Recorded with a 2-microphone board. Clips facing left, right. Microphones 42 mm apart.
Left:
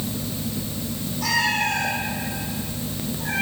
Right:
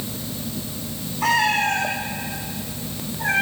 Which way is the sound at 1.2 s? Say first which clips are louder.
Right 3 dB; 40° right (ahead or behind).